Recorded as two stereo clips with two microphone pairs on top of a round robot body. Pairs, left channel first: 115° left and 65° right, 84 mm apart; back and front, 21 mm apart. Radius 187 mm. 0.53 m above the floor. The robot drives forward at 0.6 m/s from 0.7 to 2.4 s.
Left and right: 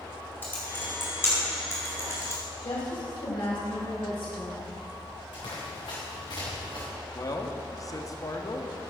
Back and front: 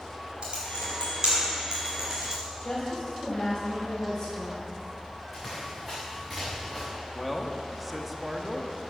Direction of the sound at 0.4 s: 50° left.